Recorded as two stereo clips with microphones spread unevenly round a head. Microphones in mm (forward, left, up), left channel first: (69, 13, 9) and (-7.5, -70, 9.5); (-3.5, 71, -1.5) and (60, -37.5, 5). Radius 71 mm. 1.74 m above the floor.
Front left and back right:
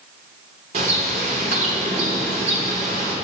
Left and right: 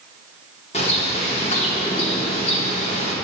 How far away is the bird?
About 0.9 m.